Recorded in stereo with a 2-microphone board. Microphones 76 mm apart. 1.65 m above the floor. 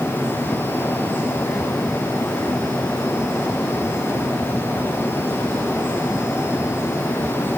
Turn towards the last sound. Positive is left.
No sound to turn to.